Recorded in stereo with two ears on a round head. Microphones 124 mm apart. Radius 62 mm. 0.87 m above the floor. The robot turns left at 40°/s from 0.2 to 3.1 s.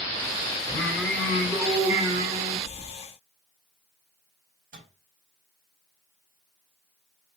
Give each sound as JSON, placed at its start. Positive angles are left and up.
{"t": 0.7, "sound": "singing", "azimuth_deg": 35, "distance_m": 3.0}
{"t": 2.7, "sound": "keys jangling", "side_deg": 30, "distance_m": 1.1}
{"t": 4.7, "sound": "a microwave", "side_deg": -60, "distance_m": 4.0}